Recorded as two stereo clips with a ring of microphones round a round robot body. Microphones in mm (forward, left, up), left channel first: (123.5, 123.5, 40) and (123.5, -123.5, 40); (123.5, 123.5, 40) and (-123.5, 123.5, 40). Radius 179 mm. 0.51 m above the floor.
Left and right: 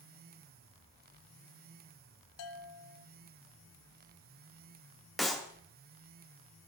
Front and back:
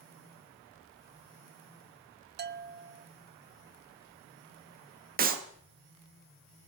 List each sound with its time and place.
2.4 s a bell: 125° left, 0.6 m
5.2 s a clap: straight behind, 0.9 m